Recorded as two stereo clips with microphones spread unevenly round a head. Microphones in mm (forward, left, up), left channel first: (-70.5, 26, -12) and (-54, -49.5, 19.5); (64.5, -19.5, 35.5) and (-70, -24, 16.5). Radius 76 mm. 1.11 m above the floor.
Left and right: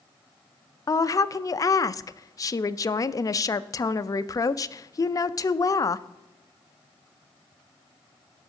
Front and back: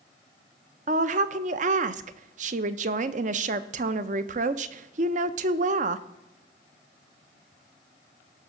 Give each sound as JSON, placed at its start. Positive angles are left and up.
{"t": 0.9, "sound": "a woman speaking", "azimuth_deg": 145, "distance_m": 0.6}